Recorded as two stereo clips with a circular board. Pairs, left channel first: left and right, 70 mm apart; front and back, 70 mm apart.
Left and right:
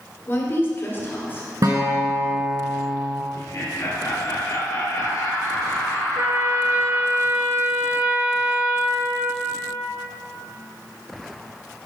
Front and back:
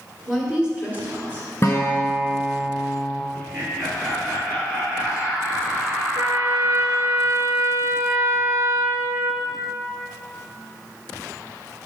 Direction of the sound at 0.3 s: 100° left.